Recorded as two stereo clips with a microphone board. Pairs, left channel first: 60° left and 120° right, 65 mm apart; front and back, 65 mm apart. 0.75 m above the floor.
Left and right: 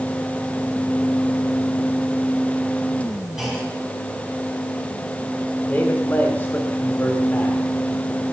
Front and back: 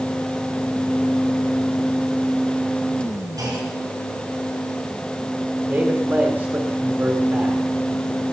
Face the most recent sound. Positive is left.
turn(degrees=125)